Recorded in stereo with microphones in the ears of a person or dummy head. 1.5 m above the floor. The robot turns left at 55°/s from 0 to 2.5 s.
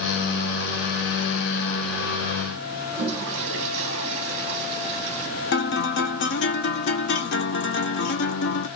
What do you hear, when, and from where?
2.9 s a toilet flushing: 35° right (ahead or behind), 1.1 m
5.5 s a guitar: 55° left (ahead or behind), 0.8 m